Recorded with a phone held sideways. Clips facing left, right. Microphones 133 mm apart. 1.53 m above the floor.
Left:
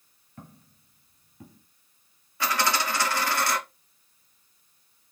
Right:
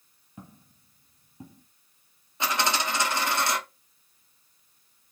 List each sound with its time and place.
0.4 s footsteps: 15° right (ahead or behind), 2.0 m; by 1.6 s 30° right (ahead or behind), 2.5 m
2.4 s a dropped coin: 20° right (ahead or behind), 1.4 m